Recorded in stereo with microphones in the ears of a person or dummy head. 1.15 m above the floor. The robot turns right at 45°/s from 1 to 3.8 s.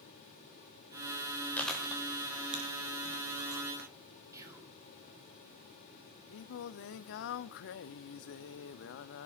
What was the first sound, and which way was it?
Chewing, 10° left (ahead or behind).